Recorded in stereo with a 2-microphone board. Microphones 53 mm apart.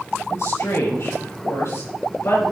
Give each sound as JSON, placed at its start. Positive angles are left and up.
{"t": 0.3, "sound": "a woman speaking", "side_deg": 60, "distance_m": 4.5}